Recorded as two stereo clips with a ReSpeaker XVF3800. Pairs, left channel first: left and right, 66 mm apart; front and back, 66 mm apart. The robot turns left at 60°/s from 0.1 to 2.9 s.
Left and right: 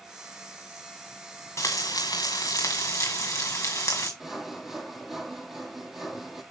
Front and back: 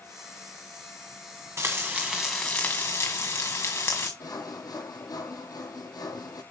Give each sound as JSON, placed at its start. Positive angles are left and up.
{"t": 1.6, "sound": "frying", "azimuth_deg": 130, "distance_m": 1.8}
{"t": 4.2, "sound": "sawing", "azimuth_deg": -5, "distance_m": 1.7}